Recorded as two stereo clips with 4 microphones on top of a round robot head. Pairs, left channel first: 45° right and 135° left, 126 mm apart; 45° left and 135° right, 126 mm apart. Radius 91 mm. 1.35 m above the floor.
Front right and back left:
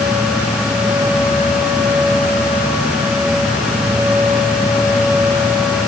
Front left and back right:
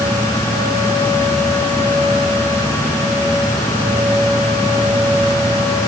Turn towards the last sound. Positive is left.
No sound to turn to.